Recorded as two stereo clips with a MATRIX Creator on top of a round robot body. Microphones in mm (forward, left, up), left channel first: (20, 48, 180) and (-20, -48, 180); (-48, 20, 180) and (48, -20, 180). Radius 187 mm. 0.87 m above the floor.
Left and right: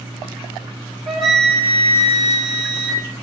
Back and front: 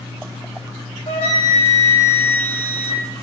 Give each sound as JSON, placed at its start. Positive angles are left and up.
{"t": 1.1, "sound": "a flute", "azimuth_deg": 160, "distance_m": 1.0}